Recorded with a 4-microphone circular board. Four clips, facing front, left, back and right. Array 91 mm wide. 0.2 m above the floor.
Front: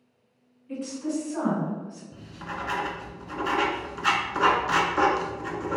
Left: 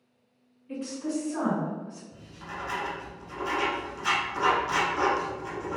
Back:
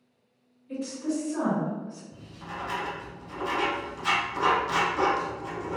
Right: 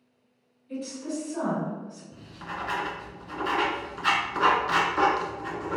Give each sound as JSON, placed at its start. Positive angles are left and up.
{"t": 0.7, "sound": "a woman speaking", "azimuth_deg": 60, "distance_m": 2.0}
{"t": 2.1, "sound": "writing", "azimuth_deg": -30, "distance_m": 0.6}